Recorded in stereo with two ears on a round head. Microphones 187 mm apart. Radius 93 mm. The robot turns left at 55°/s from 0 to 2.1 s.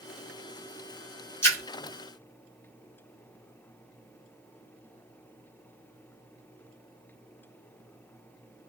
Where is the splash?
10° left (ahead or behind), 1.0 m; by 1.6 s 15° left (ahead or behind), 1.0 m.